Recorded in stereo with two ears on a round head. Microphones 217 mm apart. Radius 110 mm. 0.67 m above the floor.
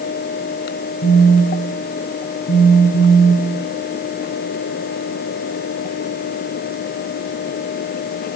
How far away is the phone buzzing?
About 2.5 m.